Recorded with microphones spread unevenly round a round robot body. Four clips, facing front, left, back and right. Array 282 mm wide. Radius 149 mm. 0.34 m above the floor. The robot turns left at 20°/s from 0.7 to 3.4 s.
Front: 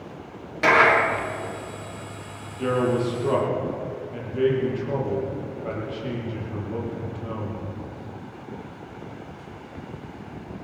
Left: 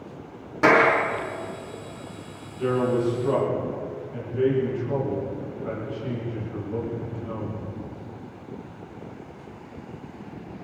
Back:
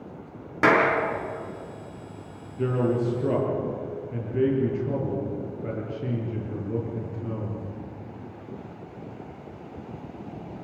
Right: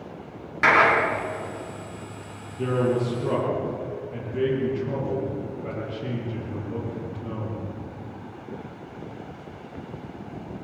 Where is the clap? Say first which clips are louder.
Left 1 dB, front 2 dB; 150° left, 4 m; by 0.9 s 145° left, 4 m.